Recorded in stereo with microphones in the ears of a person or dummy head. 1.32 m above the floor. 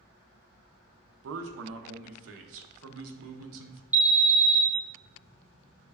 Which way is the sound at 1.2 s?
75° right (ahead or behind).